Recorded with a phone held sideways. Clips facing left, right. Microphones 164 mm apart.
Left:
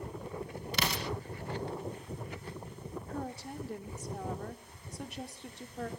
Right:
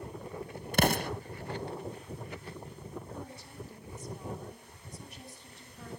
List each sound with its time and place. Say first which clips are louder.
0.7 s an explosion: right 8 dB; 50° right (ahead or behind), 0.7 m
3.1 s a woman speaking: left 5 dB; 75° left (ahead or behind), 3 m